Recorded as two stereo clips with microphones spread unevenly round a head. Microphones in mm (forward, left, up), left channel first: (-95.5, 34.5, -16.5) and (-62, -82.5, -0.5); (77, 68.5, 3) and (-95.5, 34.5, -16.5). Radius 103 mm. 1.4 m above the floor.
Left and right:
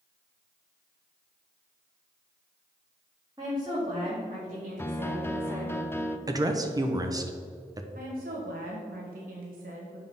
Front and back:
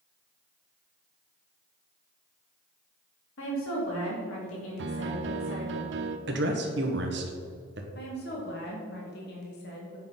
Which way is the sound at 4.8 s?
Straight behind.